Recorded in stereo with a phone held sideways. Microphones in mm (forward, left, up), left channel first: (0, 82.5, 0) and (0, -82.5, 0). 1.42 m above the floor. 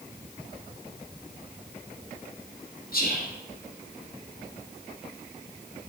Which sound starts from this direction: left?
Whispering, at 2.9 s.